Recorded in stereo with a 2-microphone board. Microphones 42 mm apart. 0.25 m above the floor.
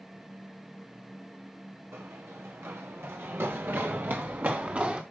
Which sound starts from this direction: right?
Running footsteps, at 1.9 s.